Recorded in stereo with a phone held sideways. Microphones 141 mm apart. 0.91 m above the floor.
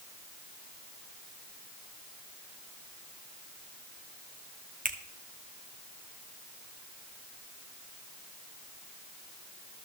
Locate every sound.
4.8 s a finger snap: 70° right (ahead or behind), 1.3 m